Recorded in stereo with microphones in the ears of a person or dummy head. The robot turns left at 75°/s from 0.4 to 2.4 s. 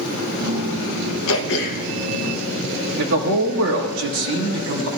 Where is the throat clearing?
80° left, 0.8 m; by 1.9 s 35° left, 0.8 m.